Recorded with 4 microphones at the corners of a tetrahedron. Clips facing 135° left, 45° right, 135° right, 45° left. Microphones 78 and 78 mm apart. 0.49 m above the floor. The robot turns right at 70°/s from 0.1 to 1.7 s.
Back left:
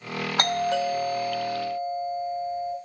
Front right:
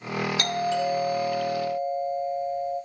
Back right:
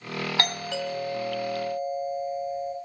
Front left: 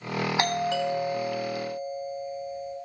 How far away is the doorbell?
About 2.5 m.